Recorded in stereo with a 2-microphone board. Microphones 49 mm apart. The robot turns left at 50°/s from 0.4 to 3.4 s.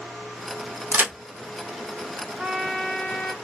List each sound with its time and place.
0.9 s a crack: 40° right (ahead or behind), 0.6 m; by 1.1 s 50° right (ahead or behind), 0.6 m
2.4 s a trumpet: 170° right, 0.7 m; by 3.3 s 145° left, 0.7 m